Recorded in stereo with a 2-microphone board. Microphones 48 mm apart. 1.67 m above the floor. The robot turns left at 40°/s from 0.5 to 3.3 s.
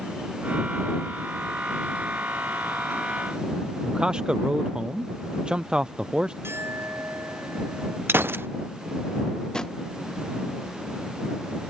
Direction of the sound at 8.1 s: 55° right (ahead or behind).